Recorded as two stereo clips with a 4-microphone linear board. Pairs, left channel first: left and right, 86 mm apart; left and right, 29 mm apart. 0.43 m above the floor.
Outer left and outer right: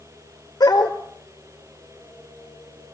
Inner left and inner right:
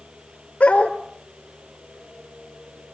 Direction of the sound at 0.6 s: 50° left (ahead or behind).